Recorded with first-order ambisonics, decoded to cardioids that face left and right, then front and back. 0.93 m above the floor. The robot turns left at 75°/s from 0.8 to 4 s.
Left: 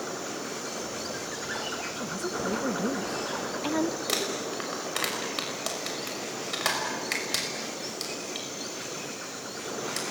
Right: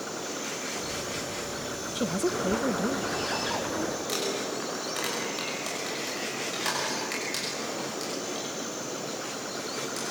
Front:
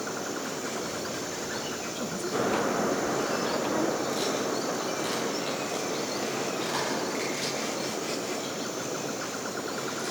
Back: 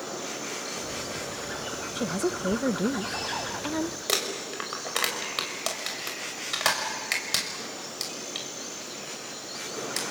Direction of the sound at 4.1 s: 155° left.